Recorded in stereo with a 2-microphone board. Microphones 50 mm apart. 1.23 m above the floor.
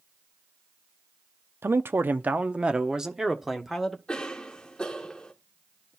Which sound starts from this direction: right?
A man speaking, at 1.6 s.